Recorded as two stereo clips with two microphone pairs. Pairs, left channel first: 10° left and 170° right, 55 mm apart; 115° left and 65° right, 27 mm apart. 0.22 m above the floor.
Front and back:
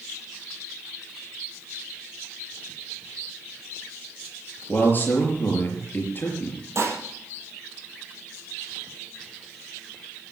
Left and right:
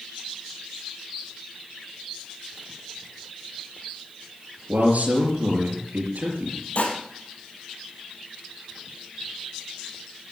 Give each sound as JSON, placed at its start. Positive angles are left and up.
{"t": 4.7, "sound": "a man speaking", "azimuth_deg": -40, "distance_m": 5.0}
{"t": 6.8, "sound": "dishes clattering", "azimuth_deg": 160, "distance_m": 4.5}